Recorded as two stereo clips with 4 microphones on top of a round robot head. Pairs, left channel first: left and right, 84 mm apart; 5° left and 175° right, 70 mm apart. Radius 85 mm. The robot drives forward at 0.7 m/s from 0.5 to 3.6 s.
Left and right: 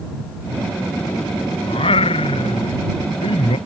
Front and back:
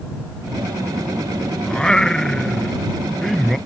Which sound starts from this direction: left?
Singing, at 1.7 s.